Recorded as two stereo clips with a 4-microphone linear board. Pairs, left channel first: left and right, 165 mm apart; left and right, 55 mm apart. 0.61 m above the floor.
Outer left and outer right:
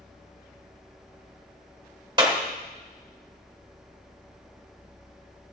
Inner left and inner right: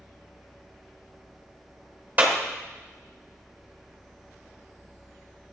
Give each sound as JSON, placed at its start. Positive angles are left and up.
{"t": 2.2, "sound": "a clap", "side_deg": -30, "distance_m": 1.8}